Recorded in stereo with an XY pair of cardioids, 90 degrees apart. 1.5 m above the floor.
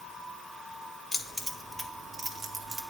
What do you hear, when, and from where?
1.1 s keys jangling: 15° left, 1.3 m; by 2.8 s 65° right, 1.3 m